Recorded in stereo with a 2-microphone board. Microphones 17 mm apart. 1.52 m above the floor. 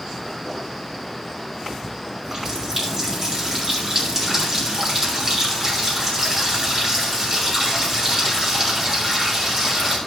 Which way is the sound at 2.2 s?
30° right (ahead or behind).